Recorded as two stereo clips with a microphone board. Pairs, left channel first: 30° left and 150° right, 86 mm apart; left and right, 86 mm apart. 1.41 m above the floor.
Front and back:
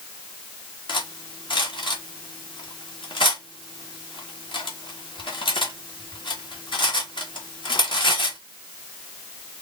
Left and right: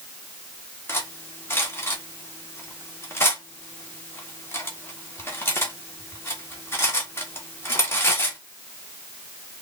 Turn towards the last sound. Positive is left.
turn(degrees=30)